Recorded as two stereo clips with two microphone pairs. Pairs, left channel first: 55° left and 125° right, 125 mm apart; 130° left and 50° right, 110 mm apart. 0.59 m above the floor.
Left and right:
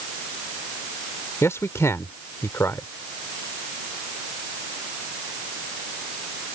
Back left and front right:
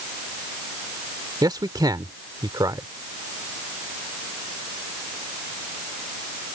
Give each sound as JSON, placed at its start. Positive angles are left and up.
{"t": 1.4, "sound": "a man speaking", "azimuth_deg": -5}